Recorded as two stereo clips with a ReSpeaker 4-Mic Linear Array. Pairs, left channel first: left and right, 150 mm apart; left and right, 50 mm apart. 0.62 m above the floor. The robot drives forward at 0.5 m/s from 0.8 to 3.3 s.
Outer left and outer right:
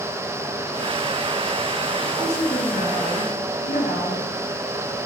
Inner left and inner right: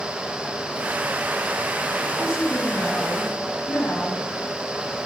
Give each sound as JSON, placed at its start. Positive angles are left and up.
{"t": 2.2, "sound": "a woman speaking", "side_deg": 50, "distance_m": 4.0}